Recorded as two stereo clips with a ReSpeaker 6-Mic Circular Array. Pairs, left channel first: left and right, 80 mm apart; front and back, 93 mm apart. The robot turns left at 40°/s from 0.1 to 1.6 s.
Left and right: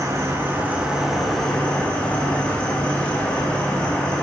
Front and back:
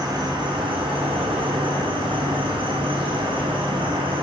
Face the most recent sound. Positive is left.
turn(degrees=165)